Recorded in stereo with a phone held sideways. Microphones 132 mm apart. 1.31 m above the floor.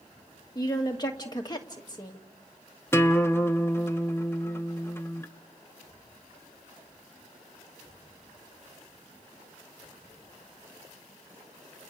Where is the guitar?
20° left (ahead or behind), 0.8 m.